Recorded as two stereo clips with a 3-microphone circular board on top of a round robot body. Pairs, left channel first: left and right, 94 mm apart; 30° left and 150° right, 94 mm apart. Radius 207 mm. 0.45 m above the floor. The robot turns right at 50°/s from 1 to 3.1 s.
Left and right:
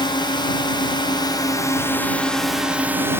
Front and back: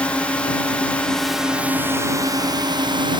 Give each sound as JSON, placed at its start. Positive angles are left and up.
{"t": 0.0, "sound": "a drone", "azimuth_deg": 105}